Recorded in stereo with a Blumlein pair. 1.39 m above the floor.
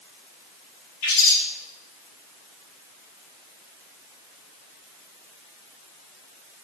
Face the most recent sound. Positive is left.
turn(degrees=45)